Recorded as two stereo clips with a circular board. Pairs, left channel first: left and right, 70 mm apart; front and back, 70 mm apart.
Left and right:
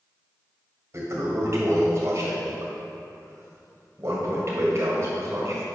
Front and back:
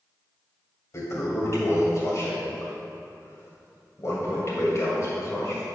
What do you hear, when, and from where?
0.9 s a toilet flushing: 45° right, 2 m